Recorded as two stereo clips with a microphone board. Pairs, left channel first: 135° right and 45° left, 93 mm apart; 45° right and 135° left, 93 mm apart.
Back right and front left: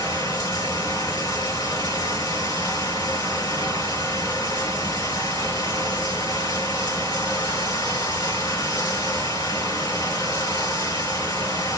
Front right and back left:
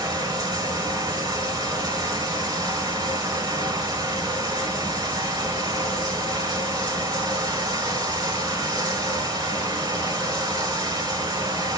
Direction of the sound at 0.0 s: Straight behind.